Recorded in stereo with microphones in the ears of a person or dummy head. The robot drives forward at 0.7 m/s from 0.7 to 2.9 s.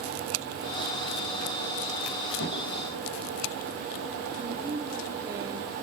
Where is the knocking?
75° left (ahead or behind), 5 m; by 2.7 s 80° left, 5 m.